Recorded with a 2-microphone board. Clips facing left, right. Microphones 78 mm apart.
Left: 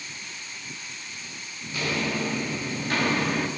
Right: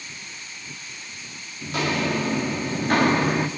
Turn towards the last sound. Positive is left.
turn(degrees=-20)  # may be behind; listen again after turning